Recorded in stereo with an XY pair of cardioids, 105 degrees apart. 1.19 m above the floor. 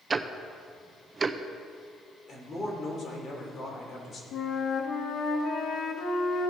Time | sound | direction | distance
0.1 | ticking | 35° right | 0.6 m
2.3 | a man speaking | 35° left | 3 m
4.3 | a flute | 60° left | 1.3 m